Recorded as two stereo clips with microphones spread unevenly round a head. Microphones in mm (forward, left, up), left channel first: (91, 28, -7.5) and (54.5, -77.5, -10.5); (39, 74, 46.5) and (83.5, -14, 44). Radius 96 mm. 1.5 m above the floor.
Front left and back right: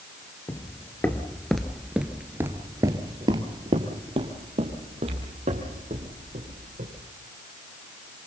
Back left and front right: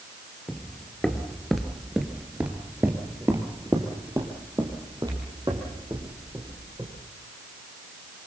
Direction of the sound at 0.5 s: 45° left.